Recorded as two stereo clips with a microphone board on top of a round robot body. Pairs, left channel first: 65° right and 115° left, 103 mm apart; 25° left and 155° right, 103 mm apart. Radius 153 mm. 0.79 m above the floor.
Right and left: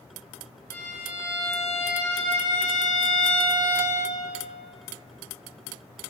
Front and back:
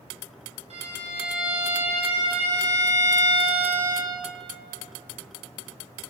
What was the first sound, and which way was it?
A violin, 135° right.